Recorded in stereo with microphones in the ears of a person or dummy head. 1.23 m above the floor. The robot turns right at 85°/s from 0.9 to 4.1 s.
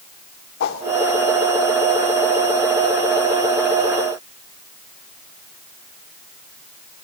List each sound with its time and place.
0.6 s a whoosh: 65° left (ahead or behind), 1.9 m